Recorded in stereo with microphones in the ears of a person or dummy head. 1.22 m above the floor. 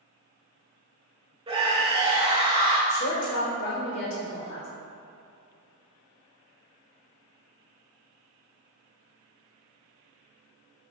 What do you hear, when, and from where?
1.5 s a scream: 25° right (ahead or behind), 1.2 m
2.9 s a woman speaking: 50° left (ahead or behind), 1.4 m